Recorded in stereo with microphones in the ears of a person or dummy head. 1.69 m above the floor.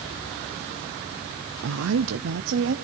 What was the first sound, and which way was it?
A woman speaking, 65° right (ahead or behind).